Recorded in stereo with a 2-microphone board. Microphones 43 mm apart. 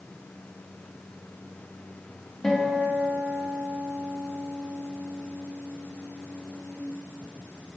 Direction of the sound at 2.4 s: 10° left (ahead or behind).